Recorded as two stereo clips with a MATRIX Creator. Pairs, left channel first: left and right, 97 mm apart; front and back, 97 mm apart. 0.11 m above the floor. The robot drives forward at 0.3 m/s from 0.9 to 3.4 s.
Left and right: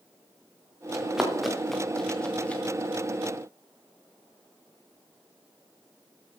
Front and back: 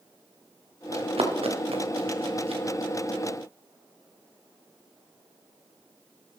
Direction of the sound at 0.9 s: 175° right.